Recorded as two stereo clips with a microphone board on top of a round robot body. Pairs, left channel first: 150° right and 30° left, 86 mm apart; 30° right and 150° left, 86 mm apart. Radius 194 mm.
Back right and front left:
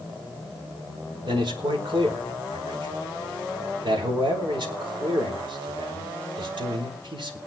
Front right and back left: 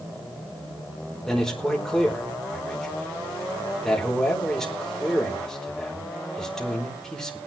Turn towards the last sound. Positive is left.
turn(degrees=55)